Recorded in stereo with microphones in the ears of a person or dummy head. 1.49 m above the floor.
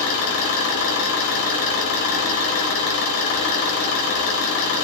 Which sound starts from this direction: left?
An engine running, at 0.0 s.